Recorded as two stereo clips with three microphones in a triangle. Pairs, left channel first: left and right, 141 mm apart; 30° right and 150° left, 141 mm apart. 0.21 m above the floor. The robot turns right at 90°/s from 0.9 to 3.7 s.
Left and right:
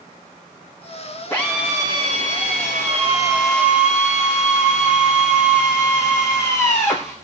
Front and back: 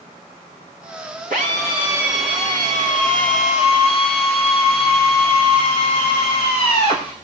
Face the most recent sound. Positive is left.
turn(degrees=20)